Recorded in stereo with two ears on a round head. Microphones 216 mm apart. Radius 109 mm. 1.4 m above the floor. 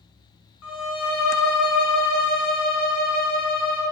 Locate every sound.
0.6 s a violin: 55° left (ahead or behind), 0.6 m